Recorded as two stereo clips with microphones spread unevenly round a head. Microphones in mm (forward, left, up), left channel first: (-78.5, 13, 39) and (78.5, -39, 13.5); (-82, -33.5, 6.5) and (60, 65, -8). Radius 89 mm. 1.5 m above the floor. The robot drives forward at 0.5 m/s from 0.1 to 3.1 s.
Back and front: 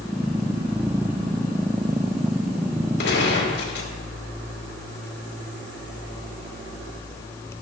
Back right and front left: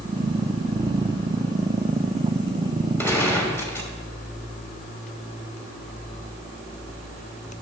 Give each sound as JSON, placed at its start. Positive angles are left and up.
{"t": 3.0, "sound": "a gunshot", "azimuth_deg": 140, "distance_m": 2.5}